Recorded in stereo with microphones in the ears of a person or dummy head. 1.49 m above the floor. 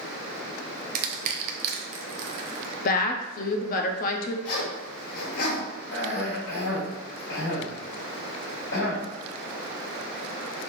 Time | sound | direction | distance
0.9 | crushing | 50° right (ahead or behind) | 0.6 m
2.9 | a woman speaking | 45° left (ahead or behind) | 0.6 m
4.5 | a zipper | 60° left (ahead or behind) | 1.5 m
5.9 | a cough | 85° left | 1.9 m